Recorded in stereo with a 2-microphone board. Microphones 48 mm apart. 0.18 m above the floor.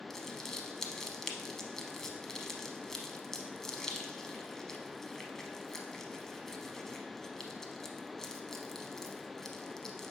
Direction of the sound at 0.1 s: 10° left (ahead or behind).